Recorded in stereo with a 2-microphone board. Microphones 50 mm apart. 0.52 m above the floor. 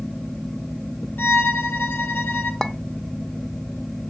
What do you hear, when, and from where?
1.2 s a violin: 45° left (ahead or behind), 2.5 m
2.6 s a clink: 10° left (ahead or behind), 0.9 m